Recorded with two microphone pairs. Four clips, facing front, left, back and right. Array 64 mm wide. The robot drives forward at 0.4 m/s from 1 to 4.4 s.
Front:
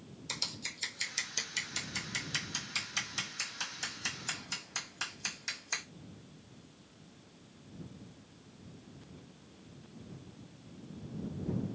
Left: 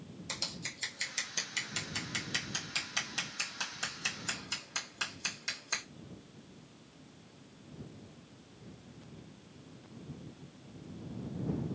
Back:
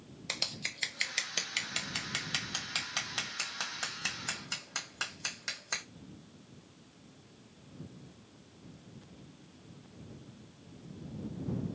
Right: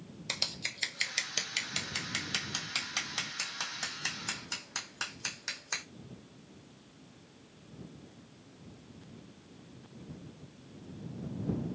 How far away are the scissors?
About 0.8 m.